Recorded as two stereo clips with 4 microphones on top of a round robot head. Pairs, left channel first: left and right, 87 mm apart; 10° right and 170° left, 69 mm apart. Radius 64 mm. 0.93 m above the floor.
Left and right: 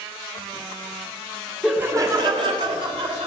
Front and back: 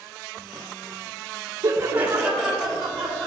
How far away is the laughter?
About 0.6 m.